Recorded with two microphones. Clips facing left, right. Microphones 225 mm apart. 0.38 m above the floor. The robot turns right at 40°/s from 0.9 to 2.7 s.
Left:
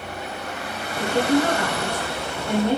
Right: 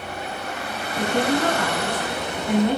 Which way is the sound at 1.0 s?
95° right.